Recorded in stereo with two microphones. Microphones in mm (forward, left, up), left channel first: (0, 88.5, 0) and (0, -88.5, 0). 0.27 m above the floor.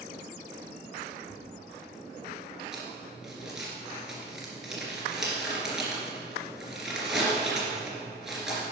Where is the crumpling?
Centre (ahead or behind), 2.5 m.